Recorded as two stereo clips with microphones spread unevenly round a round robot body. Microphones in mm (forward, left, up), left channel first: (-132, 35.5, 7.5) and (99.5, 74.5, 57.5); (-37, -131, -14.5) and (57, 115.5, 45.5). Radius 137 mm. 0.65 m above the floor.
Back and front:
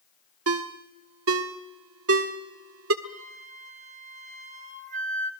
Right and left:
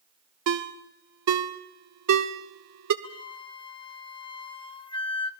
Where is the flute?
55° right, 1.4 m.